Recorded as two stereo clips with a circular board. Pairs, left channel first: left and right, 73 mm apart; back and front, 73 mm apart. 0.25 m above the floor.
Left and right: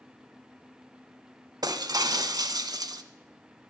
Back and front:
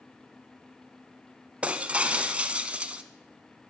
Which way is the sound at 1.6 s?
75° right.